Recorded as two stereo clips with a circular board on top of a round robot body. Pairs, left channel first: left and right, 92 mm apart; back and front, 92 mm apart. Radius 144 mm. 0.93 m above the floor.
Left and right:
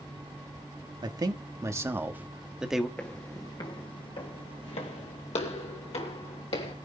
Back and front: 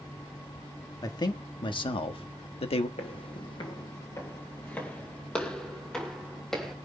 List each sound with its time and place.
1.0 s a man speaking: 135° right, 1.5 m; by 2.9 s straight behind, 1.5 m
3.0 s footsteps: 165° left, 1.2 m; by 6.7 s 90° left, 3 m